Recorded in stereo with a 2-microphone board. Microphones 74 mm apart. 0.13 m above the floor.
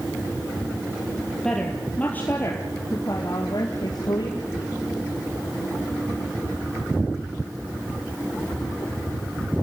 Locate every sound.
1.4 s a woman speaking: 5° left (ahead or behind), 3.5 m; by 4.4 s 65° left (ahead or behind), 5 m